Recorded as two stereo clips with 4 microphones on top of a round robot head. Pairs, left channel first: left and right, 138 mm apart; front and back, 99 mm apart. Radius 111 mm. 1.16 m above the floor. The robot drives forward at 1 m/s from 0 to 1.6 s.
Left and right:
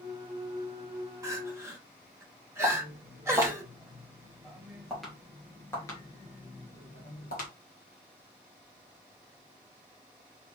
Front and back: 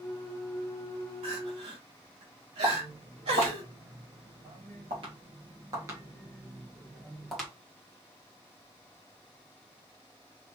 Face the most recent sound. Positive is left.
turn(degrees=85)